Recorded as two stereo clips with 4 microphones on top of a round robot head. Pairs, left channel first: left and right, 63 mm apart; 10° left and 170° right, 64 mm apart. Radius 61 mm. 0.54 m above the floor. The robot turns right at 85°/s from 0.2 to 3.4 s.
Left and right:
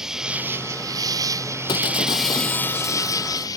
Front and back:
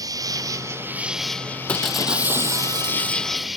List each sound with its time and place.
0.0 s an insect: 170° right; by 3.6 s 100° left
1.7 s breaking glass: 80° left; by 3.5 s 135° right